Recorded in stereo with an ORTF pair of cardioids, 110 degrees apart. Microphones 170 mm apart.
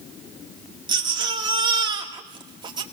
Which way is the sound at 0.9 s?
25° right.